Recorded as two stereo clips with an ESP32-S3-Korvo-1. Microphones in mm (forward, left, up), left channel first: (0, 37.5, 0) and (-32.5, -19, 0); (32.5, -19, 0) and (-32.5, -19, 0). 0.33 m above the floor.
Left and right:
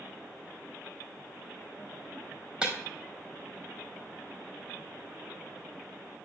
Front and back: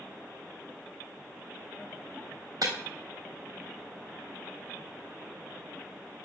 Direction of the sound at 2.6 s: 170° left.